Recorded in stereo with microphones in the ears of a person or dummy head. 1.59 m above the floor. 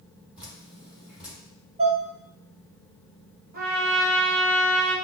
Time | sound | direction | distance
0.4 | dripping | 5° right (ahead or behind) | 1.6 m
1.8 | dishes clattering | 30° right (ahead or behind) | 0.8 m
3.5 | a trumpet | 40° right (ahead or behind) | 0.9 m